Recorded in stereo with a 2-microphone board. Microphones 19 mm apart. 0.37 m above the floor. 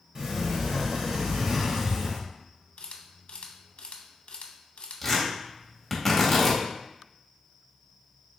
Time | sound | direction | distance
0.1 | a sliding door | 40° right (ahead or behind) | 1.2 m
2.8 | a camera shutter | 80° left | 0.6 m
5.0 | tearing paper | 5° left (ahead or behind) | 1.4 m